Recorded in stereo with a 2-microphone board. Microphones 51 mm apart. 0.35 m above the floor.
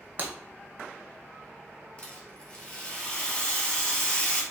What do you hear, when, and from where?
0.2 s breaking glass: 40° right (ahead or behind), 0.6 m
2.0 s a rattle: 20° left (ahead or behind), 1.4 m